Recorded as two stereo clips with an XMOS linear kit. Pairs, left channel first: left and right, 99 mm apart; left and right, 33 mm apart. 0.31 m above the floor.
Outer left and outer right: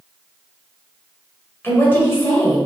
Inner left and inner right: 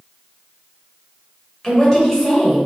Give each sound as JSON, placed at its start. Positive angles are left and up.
{"t": 1.6, "sound": "a woman speaking", "side_deg": 25, "distance_m": 1.0}